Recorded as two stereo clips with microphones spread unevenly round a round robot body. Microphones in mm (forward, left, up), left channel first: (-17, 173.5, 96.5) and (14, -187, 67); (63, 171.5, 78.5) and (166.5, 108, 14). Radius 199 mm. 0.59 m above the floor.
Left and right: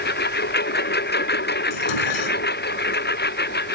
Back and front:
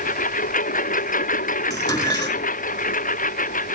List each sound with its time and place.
0.0 s a lawn mower: 160° left
1.7 s dishes clattering: 90° left